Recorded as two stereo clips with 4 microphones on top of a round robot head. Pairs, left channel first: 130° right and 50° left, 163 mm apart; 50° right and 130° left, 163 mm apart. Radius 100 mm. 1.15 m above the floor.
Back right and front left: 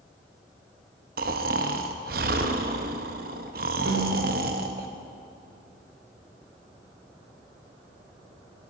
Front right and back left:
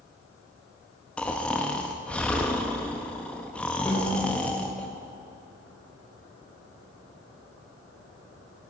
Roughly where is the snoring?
Ahead left.